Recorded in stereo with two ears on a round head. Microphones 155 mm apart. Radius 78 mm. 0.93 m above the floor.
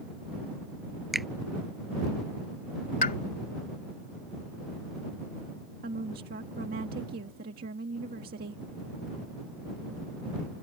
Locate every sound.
1.1 s a finger snap: centre (ahead or behind)
3.0 s a pop: 50° left (ahead or behind)
5.8 s a woman speaking: 60° right (ahead or behind)